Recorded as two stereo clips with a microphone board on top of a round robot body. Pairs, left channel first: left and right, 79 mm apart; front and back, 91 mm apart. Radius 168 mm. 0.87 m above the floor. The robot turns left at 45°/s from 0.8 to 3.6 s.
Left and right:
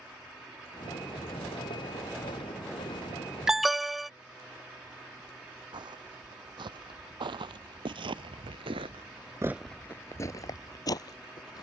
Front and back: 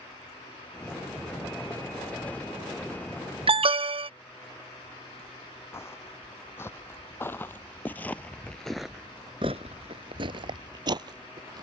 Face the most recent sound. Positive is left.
turn(degrees=135)